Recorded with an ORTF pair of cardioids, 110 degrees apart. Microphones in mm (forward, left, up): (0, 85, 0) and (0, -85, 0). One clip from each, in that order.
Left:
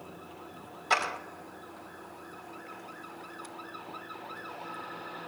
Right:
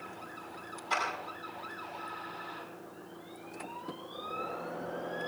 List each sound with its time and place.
0.9 s a clap: 65° left, 5.5 m